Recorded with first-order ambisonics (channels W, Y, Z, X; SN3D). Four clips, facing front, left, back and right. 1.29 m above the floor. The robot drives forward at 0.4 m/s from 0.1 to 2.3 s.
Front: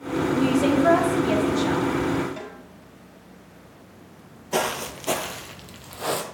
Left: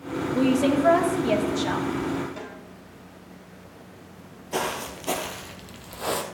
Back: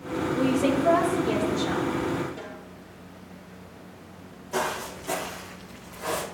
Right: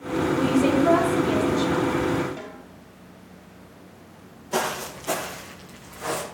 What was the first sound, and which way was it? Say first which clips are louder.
A woman speaking: even, front 3 dB; 45° left.